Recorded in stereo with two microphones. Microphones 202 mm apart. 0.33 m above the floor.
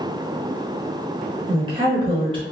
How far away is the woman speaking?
About 0.9 m.